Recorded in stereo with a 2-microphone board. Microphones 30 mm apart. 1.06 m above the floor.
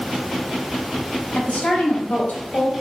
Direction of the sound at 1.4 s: 70° left (ahead or behind).